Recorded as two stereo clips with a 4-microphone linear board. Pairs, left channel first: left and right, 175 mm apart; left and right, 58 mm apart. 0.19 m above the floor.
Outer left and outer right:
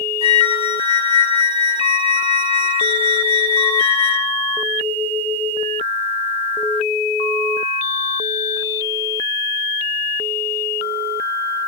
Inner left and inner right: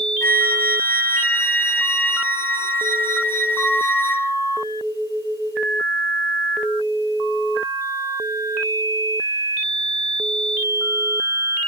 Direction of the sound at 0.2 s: 35° left (ahead or behind).